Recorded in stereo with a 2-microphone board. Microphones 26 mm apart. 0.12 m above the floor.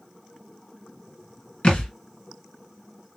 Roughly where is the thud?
Left.